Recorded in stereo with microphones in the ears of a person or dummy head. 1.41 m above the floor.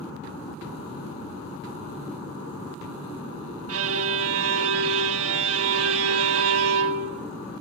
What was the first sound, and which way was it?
A violin, 85° right.